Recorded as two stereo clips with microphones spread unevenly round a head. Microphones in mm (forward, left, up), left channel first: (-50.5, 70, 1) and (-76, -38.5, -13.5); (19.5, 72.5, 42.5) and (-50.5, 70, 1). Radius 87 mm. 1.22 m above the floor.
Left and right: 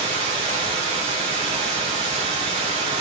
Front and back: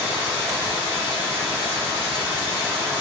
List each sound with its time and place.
0.0 s running water: 50° right, 1.5 m